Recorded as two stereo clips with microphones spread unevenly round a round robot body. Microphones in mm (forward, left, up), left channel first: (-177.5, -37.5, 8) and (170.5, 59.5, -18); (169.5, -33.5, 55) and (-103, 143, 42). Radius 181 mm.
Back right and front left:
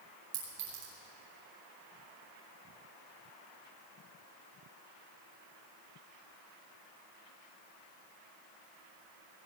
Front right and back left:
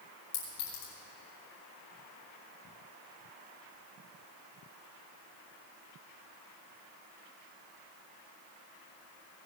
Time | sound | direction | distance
0.3 | a clink | 30° right | 6 m